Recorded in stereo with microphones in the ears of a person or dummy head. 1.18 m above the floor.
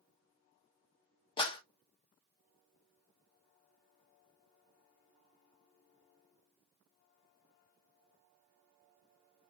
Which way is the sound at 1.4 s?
30° left (ahead or behind).